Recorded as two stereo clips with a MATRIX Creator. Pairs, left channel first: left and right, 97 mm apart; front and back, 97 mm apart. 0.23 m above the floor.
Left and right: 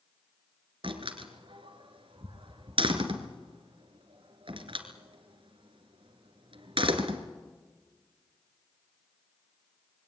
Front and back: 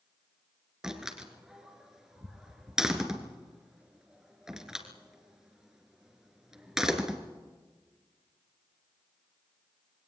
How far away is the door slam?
About 2.5 m.